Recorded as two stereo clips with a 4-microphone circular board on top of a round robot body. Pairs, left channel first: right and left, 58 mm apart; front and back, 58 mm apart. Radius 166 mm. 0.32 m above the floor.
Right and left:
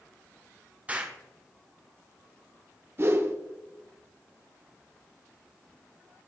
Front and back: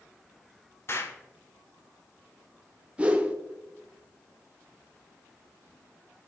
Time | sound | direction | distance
0.9 | an explosion | 30° left | 1.6 m
3.0 | a whoosh | 120° left | 1.2 m